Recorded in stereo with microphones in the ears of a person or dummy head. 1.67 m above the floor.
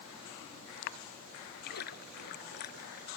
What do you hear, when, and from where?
1.6 s a splash: 55° left (ahead or behind)